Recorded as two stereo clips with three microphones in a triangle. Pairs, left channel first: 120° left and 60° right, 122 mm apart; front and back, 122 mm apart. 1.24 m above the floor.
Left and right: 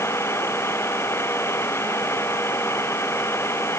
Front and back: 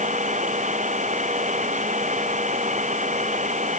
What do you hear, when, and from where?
0.0 s an engine running: 170° right